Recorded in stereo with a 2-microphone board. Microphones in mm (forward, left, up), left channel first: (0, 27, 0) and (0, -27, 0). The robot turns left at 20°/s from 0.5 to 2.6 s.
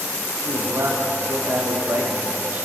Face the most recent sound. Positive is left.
turn(degrees=-145)